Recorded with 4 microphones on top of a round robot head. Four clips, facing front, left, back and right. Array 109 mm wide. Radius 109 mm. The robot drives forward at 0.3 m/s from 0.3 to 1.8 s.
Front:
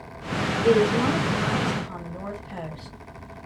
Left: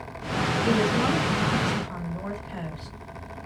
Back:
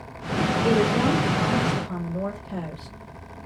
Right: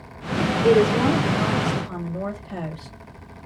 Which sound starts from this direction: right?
A woman speaking, at 0.6 s.